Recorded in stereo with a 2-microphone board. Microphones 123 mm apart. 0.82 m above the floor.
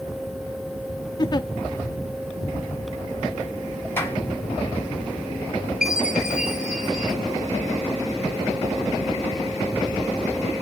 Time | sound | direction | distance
1.2 | a giggle | 35° left (ahead or behind) | 0.6 m
4.0 | a clap | 20° left (ahead or behind) | 4.5 m
5.8 | a chime | 5° right (ahead or behind) | 2.5 m